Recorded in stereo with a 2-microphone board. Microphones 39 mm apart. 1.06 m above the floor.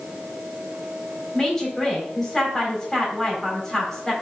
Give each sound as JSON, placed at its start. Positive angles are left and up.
{"t": 1.3, "sound": "a woman speaking", "side_deg": 15, "distance_m": 3.5}